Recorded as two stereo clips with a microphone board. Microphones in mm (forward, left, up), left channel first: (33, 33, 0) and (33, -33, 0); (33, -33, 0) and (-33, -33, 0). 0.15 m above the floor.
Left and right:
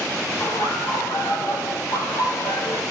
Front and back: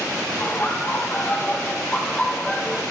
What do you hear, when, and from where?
0.4 s laughter: 55° left, 4.5 m; by 2.8 s 70° left, 5 m